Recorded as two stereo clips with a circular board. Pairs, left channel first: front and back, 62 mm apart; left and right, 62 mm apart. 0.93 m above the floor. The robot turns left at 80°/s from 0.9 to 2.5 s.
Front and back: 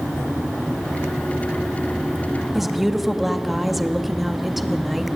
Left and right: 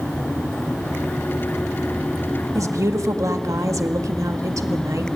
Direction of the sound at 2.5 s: 90° right.